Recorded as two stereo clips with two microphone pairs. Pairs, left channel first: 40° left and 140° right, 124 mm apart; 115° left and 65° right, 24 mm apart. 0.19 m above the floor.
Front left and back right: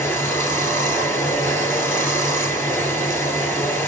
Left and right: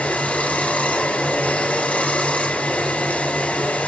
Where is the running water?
110° left, 2 m.